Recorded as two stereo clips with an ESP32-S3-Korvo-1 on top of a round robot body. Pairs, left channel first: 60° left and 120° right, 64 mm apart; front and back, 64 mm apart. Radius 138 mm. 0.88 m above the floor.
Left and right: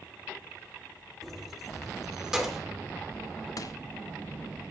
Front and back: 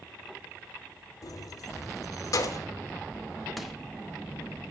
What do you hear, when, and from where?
1.2 s keys jangling: 35° right, 2.5 m; by 2.6 s 40° right, 3 m
3.6 s crushing: 90° left, 2.5 m